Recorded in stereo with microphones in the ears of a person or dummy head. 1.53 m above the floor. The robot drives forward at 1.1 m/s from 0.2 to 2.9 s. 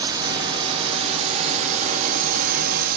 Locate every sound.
0.0 s a drone: 20° right (ahead or behind); by 3.0 s 50° right (ahead or behind)